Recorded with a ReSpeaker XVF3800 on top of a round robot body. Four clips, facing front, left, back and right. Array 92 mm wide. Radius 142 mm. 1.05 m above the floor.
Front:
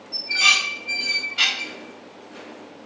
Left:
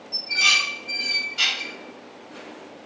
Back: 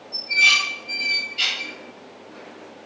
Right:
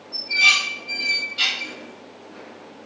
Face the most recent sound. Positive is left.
turn(degrees=15)